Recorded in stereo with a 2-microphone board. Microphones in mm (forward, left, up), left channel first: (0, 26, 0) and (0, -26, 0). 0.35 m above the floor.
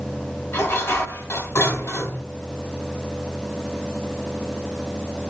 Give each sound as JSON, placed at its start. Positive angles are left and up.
{"t": 0.5, "sound": "dishes clattering", "side_deg": 55, "distance_m": 1.4}